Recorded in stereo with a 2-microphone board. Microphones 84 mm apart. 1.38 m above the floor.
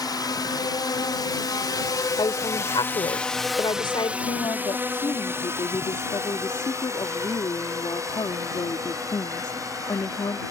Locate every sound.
0.0 s a drone: 55° left (ahead or behind); by 10.5 s 45° right (ahead or behind)
2.2 s a woman speaking: 85° left
4.2 s a woman speaking: 65° left (ahead or behind)